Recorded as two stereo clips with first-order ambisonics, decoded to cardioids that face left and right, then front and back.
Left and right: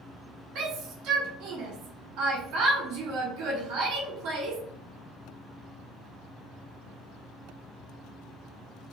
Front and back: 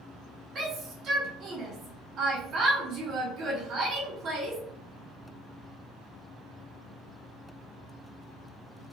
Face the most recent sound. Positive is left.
turn(degrees=-125)